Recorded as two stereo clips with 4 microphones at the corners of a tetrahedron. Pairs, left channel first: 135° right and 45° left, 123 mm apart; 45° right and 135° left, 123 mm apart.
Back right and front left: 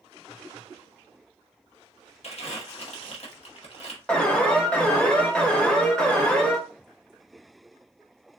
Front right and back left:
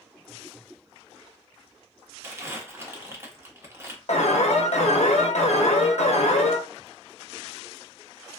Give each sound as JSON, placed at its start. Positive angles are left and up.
{"t": 2.2, "sound": "crumpling", "azimuth_deg": -160, "distance_m": 0.9}
{"t": 4.1, "sound": "an alarm", "azimuth_deg": -55, "distance_m": 0.6}